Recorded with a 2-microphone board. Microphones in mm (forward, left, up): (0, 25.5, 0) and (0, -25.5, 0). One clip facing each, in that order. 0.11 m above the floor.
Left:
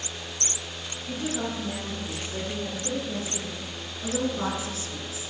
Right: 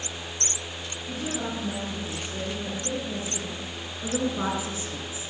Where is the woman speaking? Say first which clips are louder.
Left 1 dB; 5° left (ahead or behind), 4.5 m; by 5.3 s 30° right (ahead or behind), 1.8 m.